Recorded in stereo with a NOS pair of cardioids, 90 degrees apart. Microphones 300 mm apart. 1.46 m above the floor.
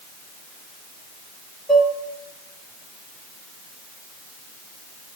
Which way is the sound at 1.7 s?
Straight ahead.